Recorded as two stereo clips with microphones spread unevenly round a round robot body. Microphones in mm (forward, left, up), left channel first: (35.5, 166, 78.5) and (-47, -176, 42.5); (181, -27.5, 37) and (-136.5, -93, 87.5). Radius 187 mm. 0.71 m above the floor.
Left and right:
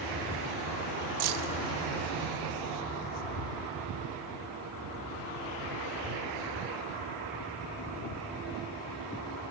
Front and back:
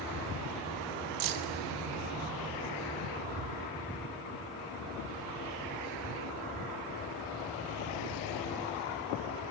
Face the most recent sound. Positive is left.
turn(degrees=-140)